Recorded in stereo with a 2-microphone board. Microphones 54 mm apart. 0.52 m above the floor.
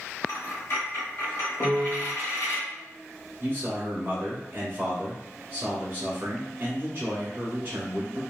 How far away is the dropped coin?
About 1.2 m.